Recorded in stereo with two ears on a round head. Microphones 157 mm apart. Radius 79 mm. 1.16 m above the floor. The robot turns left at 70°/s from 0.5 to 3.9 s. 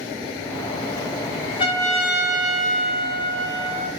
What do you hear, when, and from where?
1.6 s a trumpet: 30° left, 4.5 m; by 3.9 s 130° right, 4.5 m